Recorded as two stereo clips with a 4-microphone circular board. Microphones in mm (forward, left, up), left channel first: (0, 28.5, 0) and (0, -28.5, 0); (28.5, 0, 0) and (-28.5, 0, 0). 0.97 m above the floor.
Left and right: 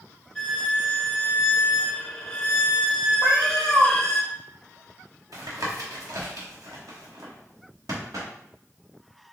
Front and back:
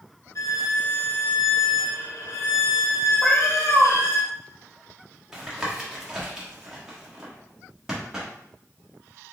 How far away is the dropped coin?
No dropped coin in this recording.